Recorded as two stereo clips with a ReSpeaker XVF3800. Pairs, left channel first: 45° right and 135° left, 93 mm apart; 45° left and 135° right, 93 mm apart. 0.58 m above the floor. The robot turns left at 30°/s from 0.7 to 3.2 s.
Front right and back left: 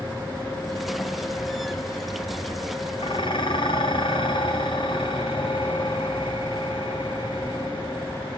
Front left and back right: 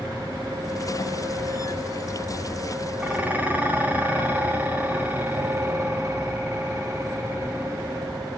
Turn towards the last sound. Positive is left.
turn(degrees=-65)